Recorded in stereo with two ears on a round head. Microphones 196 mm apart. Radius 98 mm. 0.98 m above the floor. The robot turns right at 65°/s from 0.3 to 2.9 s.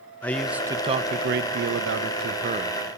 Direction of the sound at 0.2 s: 170° left.